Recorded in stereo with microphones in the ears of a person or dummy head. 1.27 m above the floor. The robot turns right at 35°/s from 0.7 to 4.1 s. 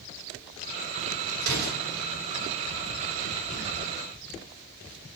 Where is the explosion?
60° right (ahead or behind), 5 m; by 1.9 s 45° right (ahead or behind), 5 m.